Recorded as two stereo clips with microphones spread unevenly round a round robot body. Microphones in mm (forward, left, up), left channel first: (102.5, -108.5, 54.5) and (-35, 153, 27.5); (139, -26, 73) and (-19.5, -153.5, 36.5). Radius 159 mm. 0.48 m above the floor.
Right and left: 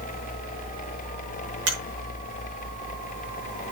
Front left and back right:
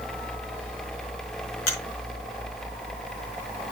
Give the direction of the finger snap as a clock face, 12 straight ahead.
9 o'clock.